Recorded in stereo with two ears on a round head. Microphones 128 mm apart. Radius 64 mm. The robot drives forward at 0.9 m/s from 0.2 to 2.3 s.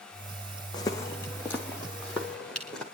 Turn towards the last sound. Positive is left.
turn(degrees=5)  # may be behind; listen again after turning